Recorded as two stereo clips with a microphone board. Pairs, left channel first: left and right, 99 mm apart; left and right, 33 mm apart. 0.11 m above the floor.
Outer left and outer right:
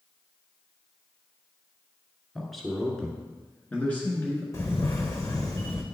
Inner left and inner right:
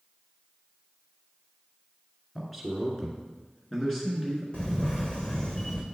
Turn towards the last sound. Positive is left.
turn(degrees=35)  # may be behind; listen again after turning